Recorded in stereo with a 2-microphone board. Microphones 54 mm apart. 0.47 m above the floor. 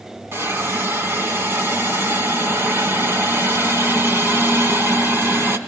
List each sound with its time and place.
0.3 s a hiss: 50° right (ahead or behind), 2 m